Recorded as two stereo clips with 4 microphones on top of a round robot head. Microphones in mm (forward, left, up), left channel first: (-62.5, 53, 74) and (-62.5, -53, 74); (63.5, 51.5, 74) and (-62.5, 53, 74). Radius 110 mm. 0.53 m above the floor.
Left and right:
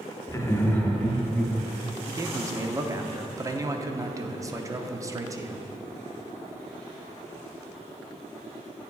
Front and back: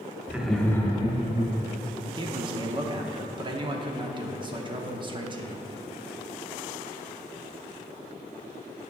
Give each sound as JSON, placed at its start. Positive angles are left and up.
{"t": 0.3, "sound": "laughter", "azimuth_deg": 115, "distance_m": 1.1}
{"t": 2.1, "sound": "a man speaking", "azimuth_deg": -145, "distance_m": 0.9}